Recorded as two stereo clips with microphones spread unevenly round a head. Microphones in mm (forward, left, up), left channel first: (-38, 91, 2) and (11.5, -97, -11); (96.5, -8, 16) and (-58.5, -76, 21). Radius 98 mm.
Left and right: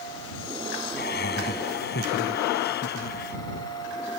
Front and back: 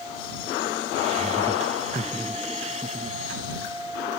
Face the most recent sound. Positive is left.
turn(degrees=145)